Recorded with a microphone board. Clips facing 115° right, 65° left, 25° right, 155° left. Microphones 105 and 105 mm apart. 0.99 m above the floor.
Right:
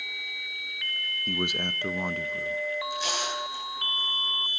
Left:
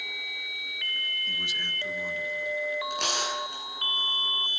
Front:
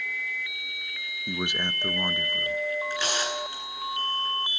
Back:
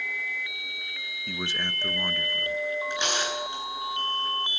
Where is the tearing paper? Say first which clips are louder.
Even, even; 90° left, 9.5 m.